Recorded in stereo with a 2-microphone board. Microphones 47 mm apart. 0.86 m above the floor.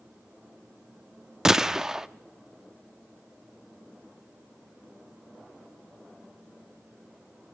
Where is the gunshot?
10° right (ahead or behind), 0.5 m.